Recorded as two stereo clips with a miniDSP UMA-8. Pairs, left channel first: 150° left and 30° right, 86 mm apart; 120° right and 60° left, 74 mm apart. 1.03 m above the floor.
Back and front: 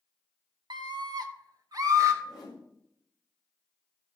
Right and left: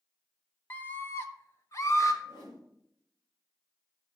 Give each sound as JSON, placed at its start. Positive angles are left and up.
{"t": 0.7, "sound": "a scream", "azimuth_deg": -55, "distance_m": 1.0}
{"t": 2.2, "sound": "a whoosh", "azimuth_deg": -125, "distance_m": 4.5}